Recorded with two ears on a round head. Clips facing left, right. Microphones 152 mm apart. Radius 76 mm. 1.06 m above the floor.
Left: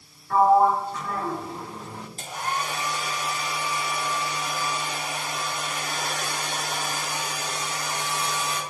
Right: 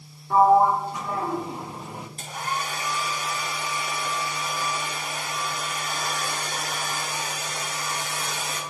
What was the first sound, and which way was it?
A sliding door, 15° right (ahead or behind).